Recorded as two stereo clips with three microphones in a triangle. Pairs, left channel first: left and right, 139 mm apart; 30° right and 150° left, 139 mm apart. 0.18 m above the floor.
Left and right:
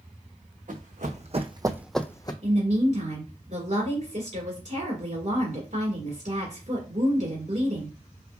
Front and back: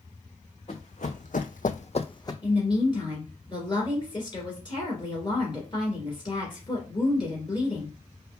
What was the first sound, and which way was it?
Running footsteps, 70° right.